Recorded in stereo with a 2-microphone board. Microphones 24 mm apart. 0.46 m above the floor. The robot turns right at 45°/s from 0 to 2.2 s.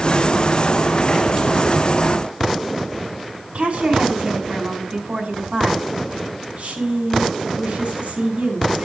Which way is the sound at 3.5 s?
60° right (ahead or behind).